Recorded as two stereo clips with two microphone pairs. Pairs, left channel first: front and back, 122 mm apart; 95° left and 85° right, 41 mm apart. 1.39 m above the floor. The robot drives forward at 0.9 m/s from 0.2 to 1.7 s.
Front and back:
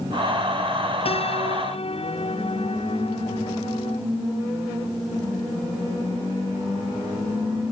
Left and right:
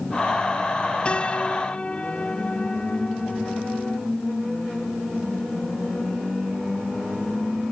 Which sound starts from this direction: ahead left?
A piano, at 1.1 s.